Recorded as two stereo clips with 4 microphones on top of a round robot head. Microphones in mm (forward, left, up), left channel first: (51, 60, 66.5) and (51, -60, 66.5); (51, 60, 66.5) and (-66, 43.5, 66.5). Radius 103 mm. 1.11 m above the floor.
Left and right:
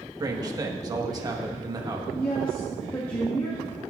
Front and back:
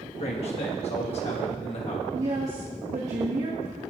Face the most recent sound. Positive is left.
turn(degrees=160)